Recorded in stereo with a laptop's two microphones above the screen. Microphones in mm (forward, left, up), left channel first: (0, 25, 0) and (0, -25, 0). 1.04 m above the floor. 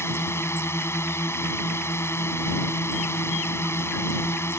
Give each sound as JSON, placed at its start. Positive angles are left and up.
{"t": 0.0, "sound": "a drone", "side_deg": 65}